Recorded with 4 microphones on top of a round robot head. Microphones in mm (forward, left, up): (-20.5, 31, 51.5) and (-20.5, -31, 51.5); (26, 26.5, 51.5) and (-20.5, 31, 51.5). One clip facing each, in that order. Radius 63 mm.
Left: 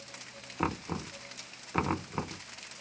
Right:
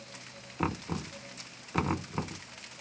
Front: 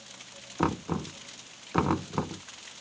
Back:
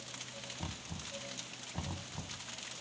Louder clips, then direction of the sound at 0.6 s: Even, front 21 dB; 5° left.